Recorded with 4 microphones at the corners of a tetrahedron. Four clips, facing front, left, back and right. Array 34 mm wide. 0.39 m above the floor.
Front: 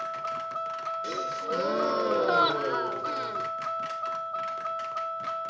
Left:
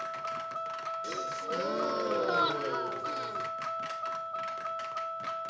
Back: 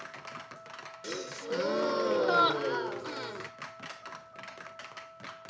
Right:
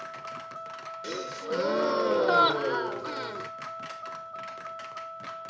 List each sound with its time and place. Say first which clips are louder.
0.0 s a vehicle: left 3 dB, front 11 dB; 15° left
1.0 s a gasp: right 5 dB, front 1 dB; 70° right